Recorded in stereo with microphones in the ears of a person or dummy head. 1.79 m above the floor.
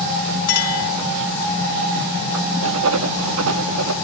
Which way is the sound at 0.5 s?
50° left (ahead or behind).